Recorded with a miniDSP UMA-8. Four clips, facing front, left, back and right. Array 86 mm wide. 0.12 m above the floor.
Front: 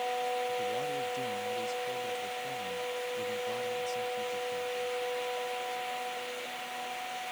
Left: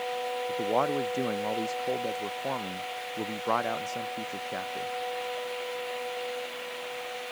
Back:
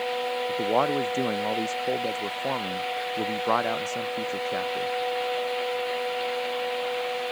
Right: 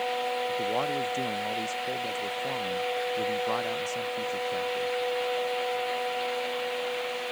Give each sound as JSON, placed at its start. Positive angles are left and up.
{"t": 0.5, "sound": "a man speaking", "azimuth_deg": 165}